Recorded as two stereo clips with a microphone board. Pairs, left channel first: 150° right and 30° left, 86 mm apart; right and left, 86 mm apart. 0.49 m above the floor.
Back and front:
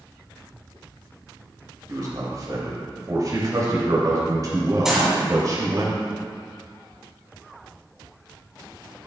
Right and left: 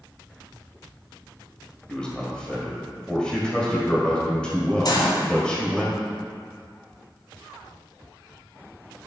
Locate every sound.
1.9 s a man speaking: 10° right, 2 m
4.8 s a gunshot: 55° right, 1.9 m